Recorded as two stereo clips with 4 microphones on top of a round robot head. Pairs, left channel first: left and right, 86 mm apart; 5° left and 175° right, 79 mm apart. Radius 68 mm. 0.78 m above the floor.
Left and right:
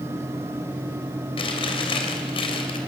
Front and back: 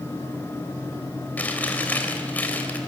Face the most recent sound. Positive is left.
turn(degrees=75)